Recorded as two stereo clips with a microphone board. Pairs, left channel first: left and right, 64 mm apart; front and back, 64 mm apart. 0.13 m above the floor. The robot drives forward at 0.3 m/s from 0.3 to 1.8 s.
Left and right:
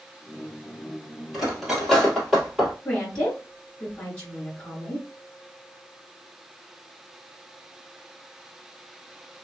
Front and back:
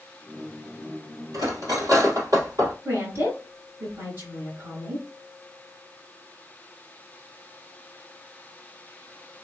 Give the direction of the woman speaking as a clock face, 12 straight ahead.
7 o'clock.